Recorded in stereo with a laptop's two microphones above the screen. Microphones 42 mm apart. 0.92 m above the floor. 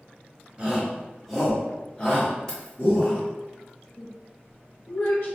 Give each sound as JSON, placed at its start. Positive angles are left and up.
{"t": 0.6, "sound": "a shout", "side_deg": -20, "distance_m": 0.9}
{"t": 2.5, "sound": "keys jangling", "side_deg": 15, "distance_m": 0.9}
{"t": 4.0, "sound": "a woman speaking", "side_deg": 55, "distance_m": 0.5}